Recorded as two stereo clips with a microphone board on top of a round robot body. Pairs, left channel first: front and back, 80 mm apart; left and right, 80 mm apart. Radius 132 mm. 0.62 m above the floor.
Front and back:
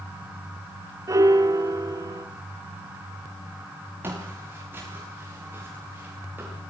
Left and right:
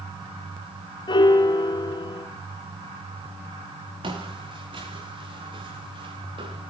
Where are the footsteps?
115° right, 9.5 m; by 6.6 s 110° right, 11.5 m.